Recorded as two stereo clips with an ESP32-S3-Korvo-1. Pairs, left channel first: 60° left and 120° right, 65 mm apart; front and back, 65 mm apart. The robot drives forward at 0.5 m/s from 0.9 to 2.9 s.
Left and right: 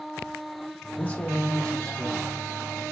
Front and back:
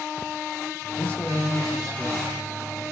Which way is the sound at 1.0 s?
25° left.